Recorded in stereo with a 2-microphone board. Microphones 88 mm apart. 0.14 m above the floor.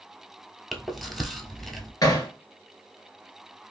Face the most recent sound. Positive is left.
turn(degrees=45)  # may be behind; listen again after turning